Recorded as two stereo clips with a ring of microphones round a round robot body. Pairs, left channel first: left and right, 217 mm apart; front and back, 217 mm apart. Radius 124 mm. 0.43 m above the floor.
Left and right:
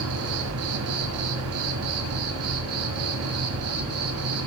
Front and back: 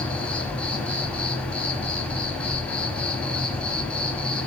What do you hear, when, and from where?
0.0 s an insect: 85° right, 1.4 m